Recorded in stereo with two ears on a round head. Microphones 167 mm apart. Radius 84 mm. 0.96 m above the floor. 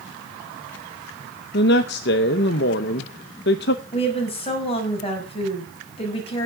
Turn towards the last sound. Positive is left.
turn(degrees=30)  # may be behind; listen again after turning